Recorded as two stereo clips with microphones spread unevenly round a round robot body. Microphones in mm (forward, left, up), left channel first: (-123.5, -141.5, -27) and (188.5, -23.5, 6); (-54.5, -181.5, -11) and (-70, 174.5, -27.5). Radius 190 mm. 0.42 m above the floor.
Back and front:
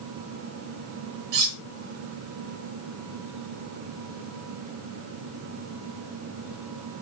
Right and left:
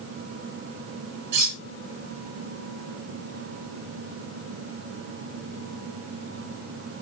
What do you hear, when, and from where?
1.3 s cutlery clinking: 45° left, 3 m